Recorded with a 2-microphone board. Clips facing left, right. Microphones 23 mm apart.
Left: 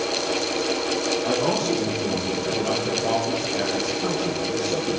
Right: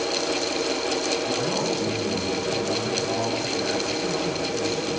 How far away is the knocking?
I don't hear knocking.